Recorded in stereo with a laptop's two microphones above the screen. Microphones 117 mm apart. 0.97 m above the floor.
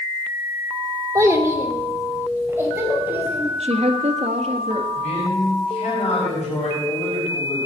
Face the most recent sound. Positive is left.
turn(degrees=80)